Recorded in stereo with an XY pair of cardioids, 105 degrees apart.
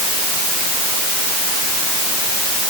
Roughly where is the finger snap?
I don't hear a finger snap.